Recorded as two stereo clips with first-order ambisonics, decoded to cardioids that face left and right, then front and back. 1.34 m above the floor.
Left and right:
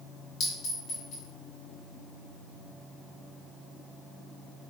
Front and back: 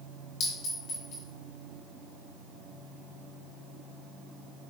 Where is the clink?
45° left, 2 m.